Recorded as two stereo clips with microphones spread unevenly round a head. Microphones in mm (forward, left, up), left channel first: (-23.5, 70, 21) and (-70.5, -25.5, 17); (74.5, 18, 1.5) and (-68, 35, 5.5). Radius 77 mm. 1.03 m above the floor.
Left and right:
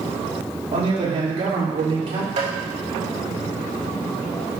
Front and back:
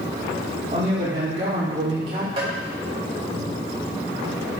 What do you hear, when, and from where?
0.7 s a man speaking: 130° right, 3 m
2.4 s tapping: 130° right, 3 m